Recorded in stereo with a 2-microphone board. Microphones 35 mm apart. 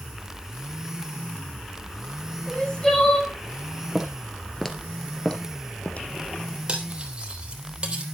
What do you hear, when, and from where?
2.5 s crying: 15° left (ahead or behind), 9 m
4.0 s footsteps: 10° right (ahead or behind), 2 m; by 6.1 s 40° left (ahead or behind), 2 m
6.7 s cutlery clinking: 30° right (ahead or behind), 3 m